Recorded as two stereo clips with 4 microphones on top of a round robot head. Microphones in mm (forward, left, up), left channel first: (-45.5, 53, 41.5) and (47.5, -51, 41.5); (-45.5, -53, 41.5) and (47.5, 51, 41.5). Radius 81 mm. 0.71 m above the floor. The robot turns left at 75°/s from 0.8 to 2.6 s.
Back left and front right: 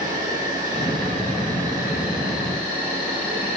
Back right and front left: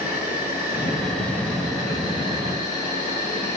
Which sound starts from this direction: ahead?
An insect, at 0.0 s.